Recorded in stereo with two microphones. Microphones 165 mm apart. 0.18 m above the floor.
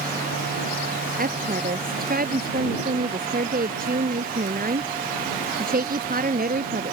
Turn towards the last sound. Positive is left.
turn(degrees=-60)  # may be behind; listen again after turning